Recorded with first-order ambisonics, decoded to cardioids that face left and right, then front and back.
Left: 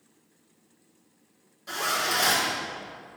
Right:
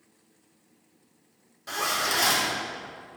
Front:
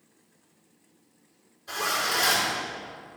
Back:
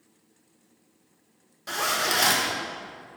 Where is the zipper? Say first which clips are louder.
Even, back 2 dB; 160° right, 1.5 m.